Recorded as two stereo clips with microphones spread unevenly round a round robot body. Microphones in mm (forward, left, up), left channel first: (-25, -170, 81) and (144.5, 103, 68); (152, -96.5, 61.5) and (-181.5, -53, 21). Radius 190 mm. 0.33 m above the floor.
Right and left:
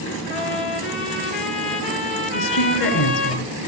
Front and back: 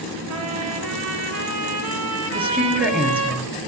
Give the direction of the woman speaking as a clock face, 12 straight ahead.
3 o'clock.